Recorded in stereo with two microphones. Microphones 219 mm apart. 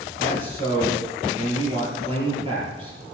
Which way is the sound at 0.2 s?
25° right (ahead or behind).